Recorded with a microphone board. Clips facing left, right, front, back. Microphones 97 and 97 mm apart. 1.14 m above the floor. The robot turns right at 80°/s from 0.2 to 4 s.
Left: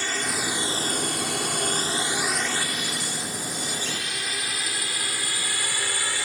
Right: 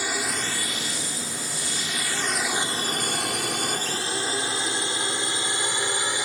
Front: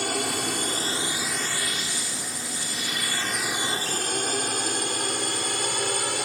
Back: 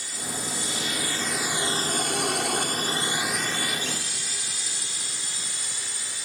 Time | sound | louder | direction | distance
0.0 | a drone | even, front 8 dB | 10° right | ?